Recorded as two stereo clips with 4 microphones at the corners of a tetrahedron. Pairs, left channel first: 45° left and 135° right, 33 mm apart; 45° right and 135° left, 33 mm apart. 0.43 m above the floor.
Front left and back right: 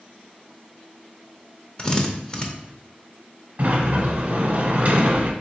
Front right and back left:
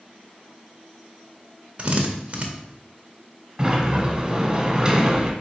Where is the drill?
100° left, 0.6 m.